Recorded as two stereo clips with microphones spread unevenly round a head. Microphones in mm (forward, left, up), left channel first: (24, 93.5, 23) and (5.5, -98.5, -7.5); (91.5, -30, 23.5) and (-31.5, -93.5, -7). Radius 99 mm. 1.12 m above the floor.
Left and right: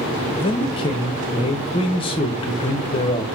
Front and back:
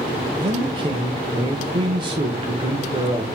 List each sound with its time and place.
0.4 s a man speaking: 150° left, 0.6 m